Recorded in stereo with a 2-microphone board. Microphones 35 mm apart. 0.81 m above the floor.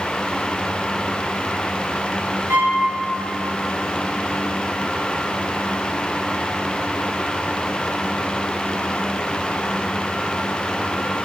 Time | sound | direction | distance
2.5 | a violin | 85° right | 1.2 m